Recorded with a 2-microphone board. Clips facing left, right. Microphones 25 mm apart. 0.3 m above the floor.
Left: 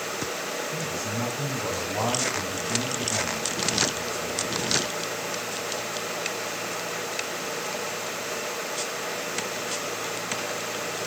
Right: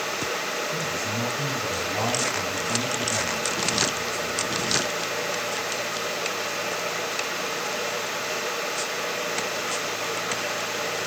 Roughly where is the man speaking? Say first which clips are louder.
Right 3 dB; left.